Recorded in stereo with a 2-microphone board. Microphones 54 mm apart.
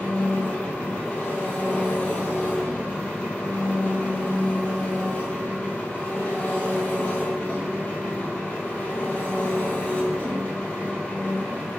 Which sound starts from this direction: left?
An engine running, at 0.0 s.